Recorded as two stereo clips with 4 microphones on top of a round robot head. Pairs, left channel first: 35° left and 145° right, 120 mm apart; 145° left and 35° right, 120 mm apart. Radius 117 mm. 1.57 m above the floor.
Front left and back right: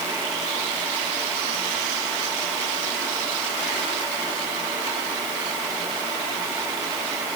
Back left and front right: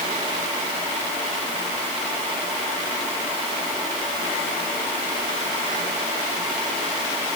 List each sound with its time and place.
Only background noise.